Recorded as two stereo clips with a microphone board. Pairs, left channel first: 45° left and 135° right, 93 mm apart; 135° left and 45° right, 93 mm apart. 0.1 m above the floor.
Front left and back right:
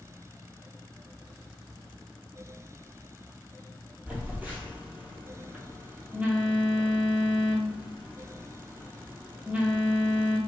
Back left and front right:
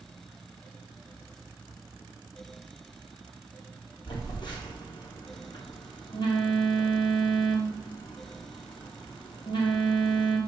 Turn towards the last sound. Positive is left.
turn(degrees=155)